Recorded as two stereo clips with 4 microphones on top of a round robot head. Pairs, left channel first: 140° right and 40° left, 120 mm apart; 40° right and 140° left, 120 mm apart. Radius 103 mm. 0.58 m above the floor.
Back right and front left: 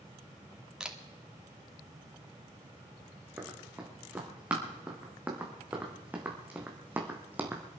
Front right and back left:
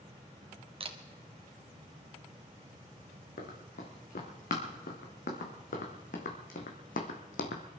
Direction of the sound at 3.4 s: 40° right.